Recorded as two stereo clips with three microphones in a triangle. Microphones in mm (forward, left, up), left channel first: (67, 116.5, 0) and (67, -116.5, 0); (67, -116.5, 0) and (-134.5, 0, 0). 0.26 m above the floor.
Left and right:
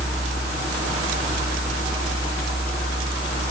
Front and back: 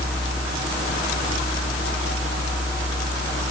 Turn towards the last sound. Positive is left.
No sound to turn to.